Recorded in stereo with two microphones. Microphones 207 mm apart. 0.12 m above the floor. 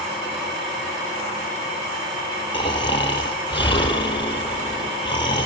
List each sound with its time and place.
2.5 s snoring: 20° left (ahead or behind), 1.6 m